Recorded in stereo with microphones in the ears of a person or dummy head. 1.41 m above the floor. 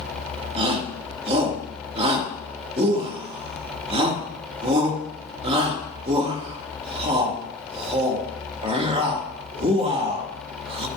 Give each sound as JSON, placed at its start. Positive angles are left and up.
{"t": 0.6, "sound": "a shout", "side_deg": -25, "distance_m": 2.5}